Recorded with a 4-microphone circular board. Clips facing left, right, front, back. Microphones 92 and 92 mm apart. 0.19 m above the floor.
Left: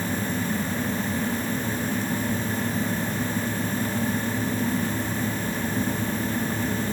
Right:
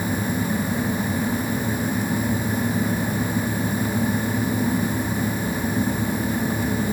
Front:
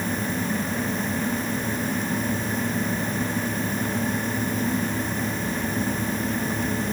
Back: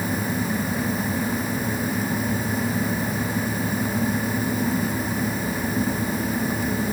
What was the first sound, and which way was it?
Only background noise.